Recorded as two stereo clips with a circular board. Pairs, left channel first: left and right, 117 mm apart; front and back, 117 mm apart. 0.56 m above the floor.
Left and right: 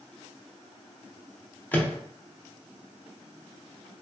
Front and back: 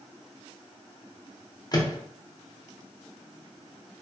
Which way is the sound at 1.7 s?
25° left.